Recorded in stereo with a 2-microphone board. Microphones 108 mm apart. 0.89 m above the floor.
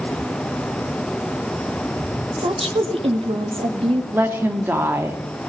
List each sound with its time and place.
2.4 s a woman speaking: 60° right (ahead or behind), 1.6 m
4.1 s a woman speaking: 20° right (ahead or behind), 1.4 m